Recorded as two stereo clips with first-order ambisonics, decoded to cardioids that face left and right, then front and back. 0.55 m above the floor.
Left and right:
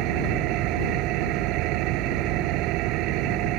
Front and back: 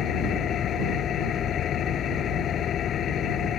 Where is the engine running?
55° right.